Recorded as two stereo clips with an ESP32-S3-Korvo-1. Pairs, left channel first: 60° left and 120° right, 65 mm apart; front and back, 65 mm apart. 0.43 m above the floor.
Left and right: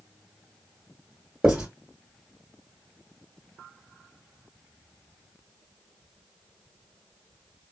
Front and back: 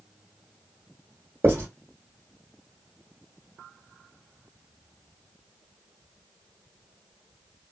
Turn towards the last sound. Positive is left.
turn(degrees=175)